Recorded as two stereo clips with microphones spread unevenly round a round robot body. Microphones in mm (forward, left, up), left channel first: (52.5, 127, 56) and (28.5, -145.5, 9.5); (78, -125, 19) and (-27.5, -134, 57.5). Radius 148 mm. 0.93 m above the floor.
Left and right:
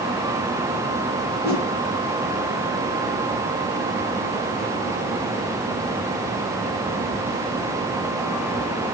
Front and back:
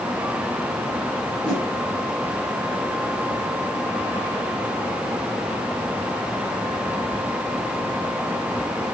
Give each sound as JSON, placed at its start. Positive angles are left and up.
{"t": 1.4, "sound": "a whoosh", "azimuth_deg": 120, "distance_m": 9.5}